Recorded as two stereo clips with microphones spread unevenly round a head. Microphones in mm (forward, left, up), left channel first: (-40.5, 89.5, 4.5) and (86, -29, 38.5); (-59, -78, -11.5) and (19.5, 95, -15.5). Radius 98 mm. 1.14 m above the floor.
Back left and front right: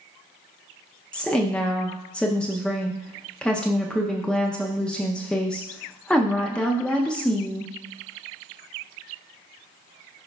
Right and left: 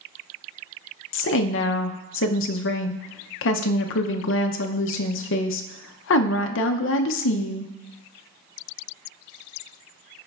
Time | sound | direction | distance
1.1 | a woman speaking | 140° right | 0.5 m